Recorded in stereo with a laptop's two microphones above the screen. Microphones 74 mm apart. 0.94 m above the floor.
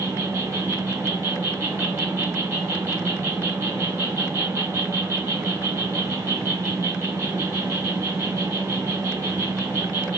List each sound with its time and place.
0.0 s an insect: 45° right (ahead or behind), 1.9 m